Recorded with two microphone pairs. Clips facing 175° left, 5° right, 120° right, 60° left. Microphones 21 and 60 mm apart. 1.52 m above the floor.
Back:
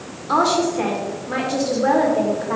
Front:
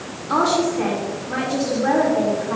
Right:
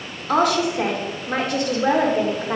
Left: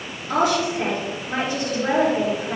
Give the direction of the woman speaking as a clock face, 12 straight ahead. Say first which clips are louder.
Back 1 dB, right 2 dB; 5 o'clock.